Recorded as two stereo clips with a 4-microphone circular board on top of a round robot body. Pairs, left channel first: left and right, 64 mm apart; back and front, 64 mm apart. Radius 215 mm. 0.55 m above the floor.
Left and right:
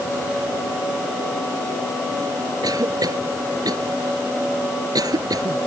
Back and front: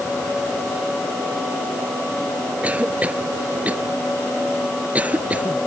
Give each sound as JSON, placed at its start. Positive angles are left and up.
{"t": 2.6, "sound": "a cough", "azimuth_deg": -70}